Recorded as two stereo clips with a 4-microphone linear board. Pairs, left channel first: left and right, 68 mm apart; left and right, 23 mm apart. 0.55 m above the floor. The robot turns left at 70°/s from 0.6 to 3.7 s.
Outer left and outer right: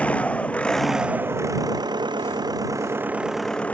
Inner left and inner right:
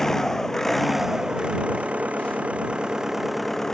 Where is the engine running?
15° left; by 3.7 s 160° left.